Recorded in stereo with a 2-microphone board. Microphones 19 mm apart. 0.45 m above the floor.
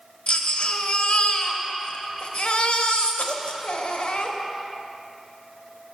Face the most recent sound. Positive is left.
turn(degrees=70)  # may be behind; listen again after turning